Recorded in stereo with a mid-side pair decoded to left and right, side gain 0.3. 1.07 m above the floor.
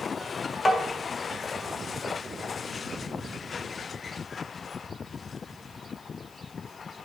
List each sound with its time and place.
0.7 s tapping: 35° left, 2.5 m